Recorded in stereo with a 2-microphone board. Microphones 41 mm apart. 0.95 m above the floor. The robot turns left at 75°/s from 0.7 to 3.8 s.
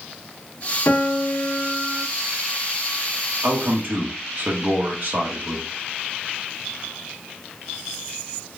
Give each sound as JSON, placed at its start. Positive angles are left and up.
{"t": 0.9, "sound": "a piano", "azimuth_deg": 85, "distance_m": 0.7}
{"t": 3.4, "sound": "a man speaking", "side_deg": -60, "distance_m": 1.4}